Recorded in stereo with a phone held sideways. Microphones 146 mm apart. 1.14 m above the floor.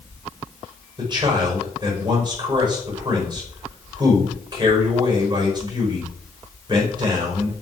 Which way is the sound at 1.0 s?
30° right (ahead or behind).